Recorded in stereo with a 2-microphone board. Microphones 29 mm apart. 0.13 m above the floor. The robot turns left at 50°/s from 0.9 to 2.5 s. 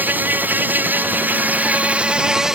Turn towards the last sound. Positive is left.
turn(degrees=-165)